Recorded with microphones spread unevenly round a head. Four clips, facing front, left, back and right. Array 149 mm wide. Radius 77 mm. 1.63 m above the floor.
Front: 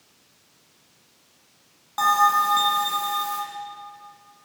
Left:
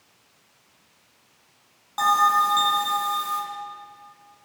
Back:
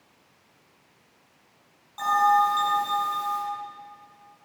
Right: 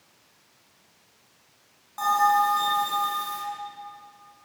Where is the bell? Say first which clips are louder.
Left 2 dB, front 1 dB; 25° left, 7.5 m.